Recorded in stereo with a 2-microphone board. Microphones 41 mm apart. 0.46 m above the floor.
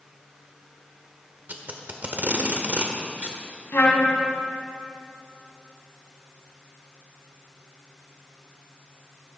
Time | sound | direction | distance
1.5 | tape being pulled | 45° right (ahead or behind) | 1.3 m
3.7 | a trumpet | 75° left (ahead or behind) | 2 m